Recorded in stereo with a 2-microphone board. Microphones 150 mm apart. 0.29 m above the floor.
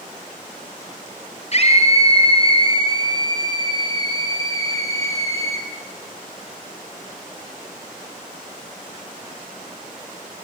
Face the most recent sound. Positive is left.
turn(degrees=20)  # may be behind; listen again after turning